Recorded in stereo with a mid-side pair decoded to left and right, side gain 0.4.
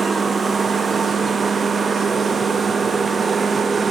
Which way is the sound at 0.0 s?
45° right.